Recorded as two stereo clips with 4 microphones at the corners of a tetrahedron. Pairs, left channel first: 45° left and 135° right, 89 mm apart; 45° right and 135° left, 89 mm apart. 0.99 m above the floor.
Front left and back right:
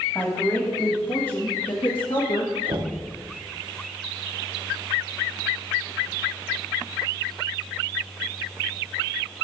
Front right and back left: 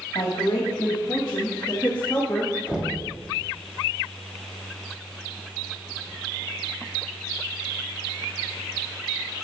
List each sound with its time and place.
0.1 s a woman speaking: 20° right, 1.9 m; by 2.5 s 45° left, 1.2 m
2.7 s knocking: 150° right, 1.1 m